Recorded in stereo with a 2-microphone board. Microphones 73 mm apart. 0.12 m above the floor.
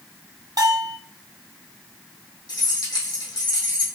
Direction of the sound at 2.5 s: 65° left (ahead or behind).